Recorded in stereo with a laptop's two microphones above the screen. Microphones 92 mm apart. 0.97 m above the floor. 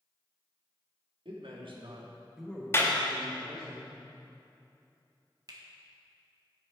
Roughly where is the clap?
Left.